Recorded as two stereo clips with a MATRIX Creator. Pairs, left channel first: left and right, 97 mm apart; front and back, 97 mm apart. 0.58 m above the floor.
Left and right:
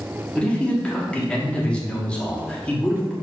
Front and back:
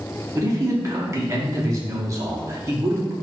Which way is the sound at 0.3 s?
160° left.